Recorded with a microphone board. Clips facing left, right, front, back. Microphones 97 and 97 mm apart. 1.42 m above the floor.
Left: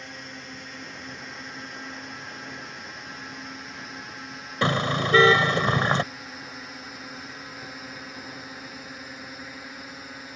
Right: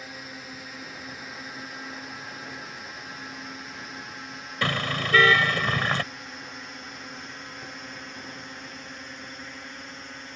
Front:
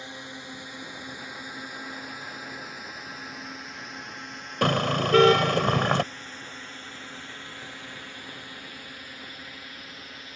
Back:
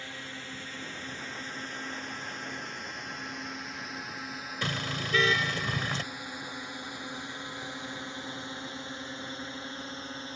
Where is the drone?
10° right; by 10.4 s 170° left.